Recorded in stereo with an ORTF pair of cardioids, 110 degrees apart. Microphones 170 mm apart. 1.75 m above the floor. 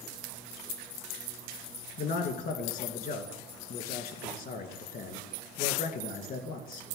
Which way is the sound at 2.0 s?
60° left.